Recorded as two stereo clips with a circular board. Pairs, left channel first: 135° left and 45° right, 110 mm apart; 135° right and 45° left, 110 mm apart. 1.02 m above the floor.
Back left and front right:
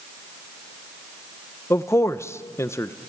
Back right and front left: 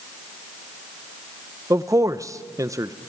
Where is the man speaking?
85° left, 0.6 m.